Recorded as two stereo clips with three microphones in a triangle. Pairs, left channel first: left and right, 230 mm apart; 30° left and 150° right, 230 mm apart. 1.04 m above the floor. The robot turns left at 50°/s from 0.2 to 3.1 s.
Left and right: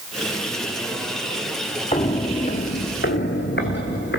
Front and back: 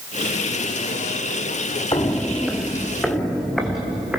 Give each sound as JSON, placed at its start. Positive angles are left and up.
{"t": 1.9, "sound": "footsteps", "azimuth_deg": 75, "distance_m": 1.1}